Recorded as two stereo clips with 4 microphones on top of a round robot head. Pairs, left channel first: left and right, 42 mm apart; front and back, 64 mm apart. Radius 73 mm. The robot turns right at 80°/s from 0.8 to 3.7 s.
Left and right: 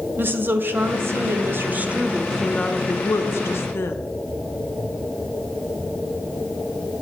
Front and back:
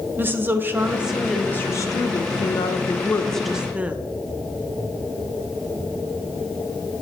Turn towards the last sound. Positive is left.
turn(degrees=110)